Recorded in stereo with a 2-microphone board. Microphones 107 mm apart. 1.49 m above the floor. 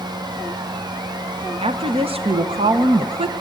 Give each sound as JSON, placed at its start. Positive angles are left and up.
{"t": 1.6, "sound": "a woman speaking", "side_deg": -65, "distance_m": 0.9}